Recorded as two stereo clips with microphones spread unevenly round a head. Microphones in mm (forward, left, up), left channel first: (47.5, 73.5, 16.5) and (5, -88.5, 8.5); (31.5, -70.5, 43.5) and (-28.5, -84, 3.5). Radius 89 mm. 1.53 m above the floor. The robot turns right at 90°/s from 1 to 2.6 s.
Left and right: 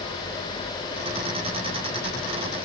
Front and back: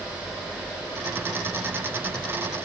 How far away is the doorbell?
I don't hear a doorbell.